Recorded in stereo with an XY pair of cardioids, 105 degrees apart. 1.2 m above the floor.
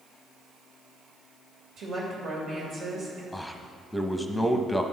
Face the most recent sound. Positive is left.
turn(degrees=5)